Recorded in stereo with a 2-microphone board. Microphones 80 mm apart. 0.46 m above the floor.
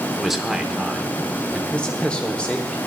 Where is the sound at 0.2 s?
5° right (ahead or behind), 0.8 m.